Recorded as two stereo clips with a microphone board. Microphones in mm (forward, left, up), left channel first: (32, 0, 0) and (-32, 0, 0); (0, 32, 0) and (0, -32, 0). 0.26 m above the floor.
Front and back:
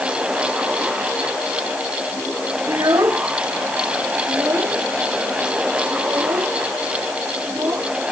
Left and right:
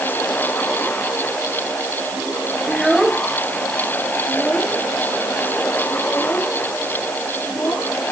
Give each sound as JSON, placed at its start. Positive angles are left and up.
{"t": 2.7, "sound": "a child speaking", "azimuth_deg": 180}